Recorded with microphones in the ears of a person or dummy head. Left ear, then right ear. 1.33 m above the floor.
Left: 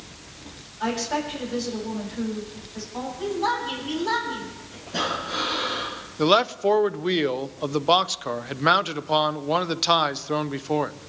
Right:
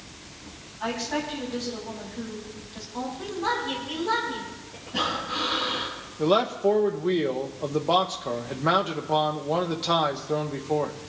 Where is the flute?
I don't hear a flute.